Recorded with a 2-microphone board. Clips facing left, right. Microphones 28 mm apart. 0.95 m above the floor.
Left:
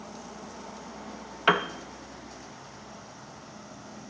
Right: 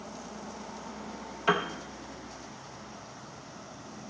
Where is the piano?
35° left (ahead or behind), 0.7 m.